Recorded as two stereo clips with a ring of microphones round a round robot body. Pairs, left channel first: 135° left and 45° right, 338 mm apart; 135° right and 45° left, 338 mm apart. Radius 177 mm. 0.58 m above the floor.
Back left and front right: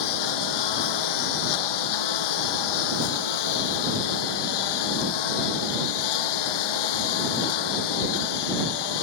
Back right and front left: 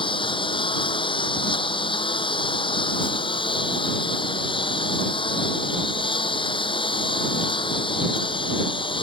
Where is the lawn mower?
150° left.